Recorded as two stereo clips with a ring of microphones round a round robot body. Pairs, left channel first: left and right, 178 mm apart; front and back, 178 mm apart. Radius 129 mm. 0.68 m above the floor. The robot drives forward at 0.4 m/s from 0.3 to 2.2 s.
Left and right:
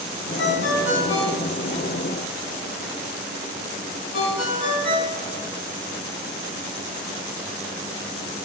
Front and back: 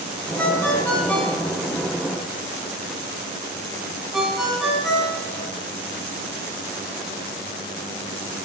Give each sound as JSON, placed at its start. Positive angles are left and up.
{"t": 0.4, "sound": "a ringtone", "azimuth_deg": 80, "distance_m": 3.0}